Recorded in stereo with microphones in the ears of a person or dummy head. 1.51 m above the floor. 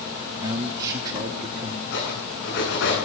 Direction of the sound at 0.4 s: 20° right (ahead or behind).